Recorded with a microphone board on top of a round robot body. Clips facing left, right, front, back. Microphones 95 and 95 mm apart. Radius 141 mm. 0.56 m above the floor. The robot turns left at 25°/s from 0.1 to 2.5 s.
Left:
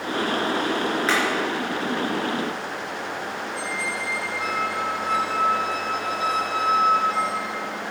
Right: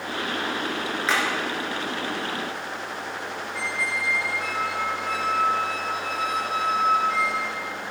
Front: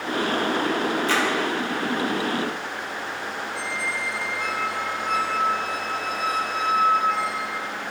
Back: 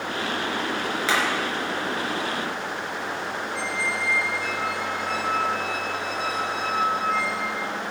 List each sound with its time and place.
1.1 s hammering: straight behind, 3.5 m; by 1.2 s 175° left, 3.5 m
3.5 s a squeak: 35° left, 1.3 m